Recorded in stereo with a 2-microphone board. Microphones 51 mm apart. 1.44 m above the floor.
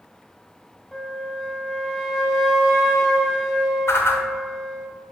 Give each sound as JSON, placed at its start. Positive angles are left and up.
{"t": 0.9, "sound": "a flute", "side_deg": 5, "distance_m": 0.7}
{"t": 3.9, "sound": "a whoosh", "side_deg": 55, "distance_m": 0.6}